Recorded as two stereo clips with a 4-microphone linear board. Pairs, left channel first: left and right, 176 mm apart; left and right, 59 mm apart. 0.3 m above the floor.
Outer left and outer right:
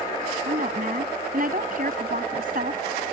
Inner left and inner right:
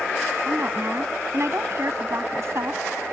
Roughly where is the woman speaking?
Right.